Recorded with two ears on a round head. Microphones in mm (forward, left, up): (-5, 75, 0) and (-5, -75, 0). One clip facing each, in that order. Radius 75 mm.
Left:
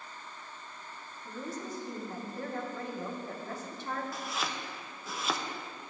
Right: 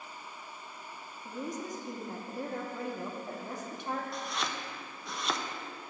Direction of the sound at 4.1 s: Centre (ahead or behind).